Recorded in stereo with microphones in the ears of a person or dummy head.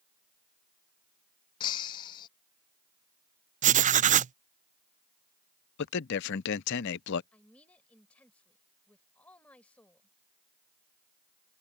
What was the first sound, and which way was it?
Breaking glass, 25° left (ahead or behind).